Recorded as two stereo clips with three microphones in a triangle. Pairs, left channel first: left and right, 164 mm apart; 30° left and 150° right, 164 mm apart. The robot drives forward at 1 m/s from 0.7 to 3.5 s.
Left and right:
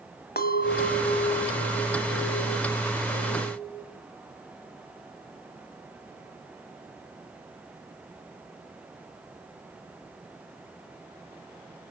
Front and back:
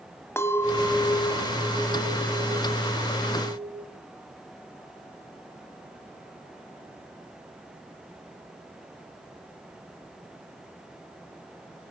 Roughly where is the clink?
Left.